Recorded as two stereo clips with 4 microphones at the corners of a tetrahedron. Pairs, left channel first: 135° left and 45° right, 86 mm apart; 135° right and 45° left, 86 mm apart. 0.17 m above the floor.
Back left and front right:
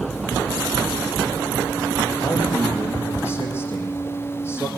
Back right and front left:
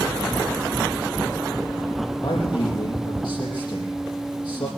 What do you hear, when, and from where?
2.2 s a man speaking: 165° right, 4.5 m